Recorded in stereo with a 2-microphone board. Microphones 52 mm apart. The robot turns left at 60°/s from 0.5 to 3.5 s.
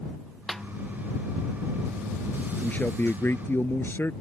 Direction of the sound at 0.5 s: 5° left (ahead or behind).